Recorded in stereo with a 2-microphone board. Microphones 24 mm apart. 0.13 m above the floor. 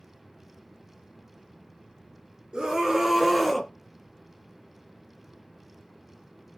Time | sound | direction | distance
2.5 | a scream | 35° right (ahead or behind) | 2.0 m